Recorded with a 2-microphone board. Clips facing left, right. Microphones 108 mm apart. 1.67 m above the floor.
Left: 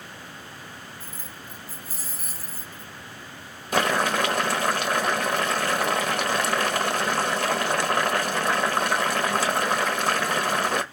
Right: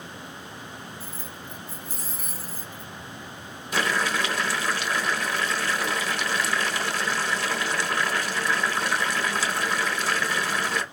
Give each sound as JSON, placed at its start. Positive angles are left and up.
{"t": 1.0, "sound": "keys jangling", "side_deg": 15, "distance_m": 0.9}
{"t": 3.7, "sound": "boiling", "side_deg": 50, "distance_m": 0.8}